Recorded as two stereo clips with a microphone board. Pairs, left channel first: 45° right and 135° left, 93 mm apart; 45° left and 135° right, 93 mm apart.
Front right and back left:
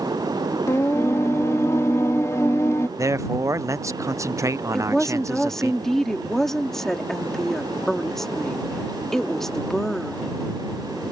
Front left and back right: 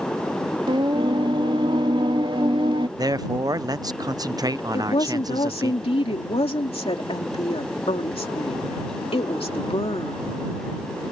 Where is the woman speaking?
40° left.